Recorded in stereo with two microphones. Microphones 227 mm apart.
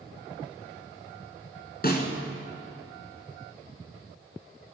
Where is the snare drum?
45° left (ahead or behind), 2.5 m.